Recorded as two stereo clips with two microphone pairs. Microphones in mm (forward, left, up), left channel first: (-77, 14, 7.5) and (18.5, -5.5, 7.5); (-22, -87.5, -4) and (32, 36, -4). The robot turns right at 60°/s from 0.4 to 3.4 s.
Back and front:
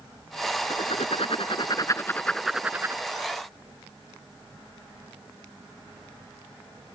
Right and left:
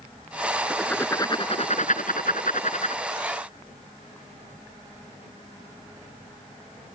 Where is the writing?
155° left; by 3.0 s 65° right.